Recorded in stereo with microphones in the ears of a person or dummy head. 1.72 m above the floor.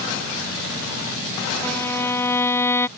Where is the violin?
20° left (ahead or behind).